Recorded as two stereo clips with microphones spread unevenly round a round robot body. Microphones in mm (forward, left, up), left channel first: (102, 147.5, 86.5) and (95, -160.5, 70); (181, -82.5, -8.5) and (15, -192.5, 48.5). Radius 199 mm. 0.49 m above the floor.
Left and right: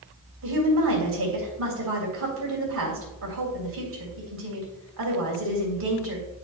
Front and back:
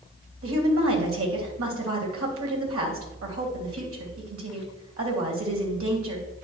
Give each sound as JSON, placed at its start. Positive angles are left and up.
{"t": 0.4, "sound": "a woman speaking", "azimuth_deg": -140, "distance_m": 3.0}